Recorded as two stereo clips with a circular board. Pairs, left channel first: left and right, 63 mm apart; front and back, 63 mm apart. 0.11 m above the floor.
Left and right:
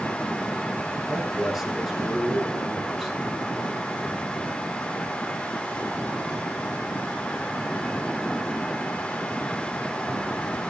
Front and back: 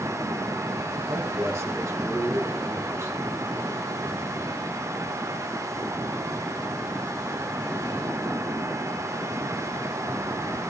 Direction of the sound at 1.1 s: 170° right.